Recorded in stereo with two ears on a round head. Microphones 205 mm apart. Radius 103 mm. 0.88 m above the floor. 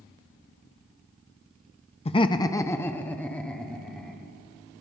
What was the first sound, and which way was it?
Laughter, 25° left (ahead or behind).